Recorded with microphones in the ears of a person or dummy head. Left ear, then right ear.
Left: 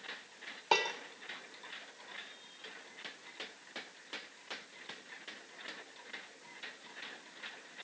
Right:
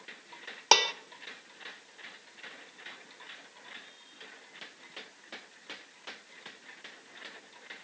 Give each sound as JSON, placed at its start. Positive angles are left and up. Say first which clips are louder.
{"t": 0.7, "sound": "dishes clattering", "louder": "right 7 dB", "side_deg": -40, "distance_m": 0.8}